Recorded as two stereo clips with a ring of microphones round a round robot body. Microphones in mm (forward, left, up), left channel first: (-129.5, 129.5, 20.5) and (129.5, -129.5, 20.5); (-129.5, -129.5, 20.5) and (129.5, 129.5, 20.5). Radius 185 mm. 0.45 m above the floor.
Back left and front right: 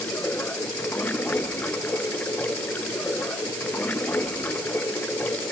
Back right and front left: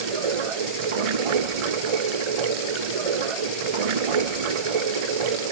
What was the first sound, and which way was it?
Running water, 50° left.